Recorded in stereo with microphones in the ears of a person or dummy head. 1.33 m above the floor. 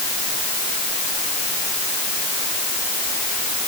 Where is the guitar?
No guitar in this recording.